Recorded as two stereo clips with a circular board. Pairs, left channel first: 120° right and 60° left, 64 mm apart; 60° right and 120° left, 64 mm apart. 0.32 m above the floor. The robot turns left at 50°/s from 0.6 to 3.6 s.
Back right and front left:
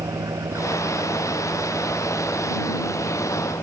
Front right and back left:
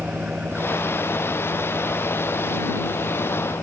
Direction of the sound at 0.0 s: 50° left.